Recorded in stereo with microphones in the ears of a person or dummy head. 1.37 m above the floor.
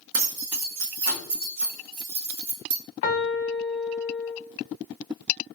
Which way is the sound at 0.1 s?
70° right (ahead or behind).